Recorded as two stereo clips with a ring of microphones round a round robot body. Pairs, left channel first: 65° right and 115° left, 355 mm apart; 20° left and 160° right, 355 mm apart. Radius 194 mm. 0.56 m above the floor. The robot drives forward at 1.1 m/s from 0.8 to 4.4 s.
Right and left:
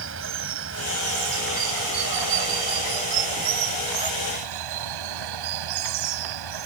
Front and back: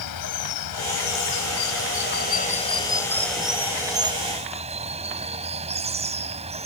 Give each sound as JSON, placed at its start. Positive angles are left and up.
{"t": 0.0, "sound": "running water", "azimuth_deg": 60}